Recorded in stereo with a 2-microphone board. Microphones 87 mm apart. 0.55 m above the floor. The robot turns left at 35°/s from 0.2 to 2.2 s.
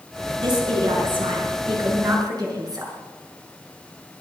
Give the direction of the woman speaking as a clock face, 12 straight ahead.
2 o'clock.